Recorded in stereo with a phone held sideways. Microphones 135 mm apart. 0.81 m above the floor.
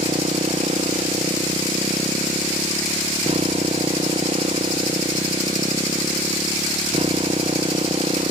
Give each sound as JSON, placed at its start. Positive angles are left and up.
{"t": 0.0, "sound": "a motorcycle", "side_deg": -50}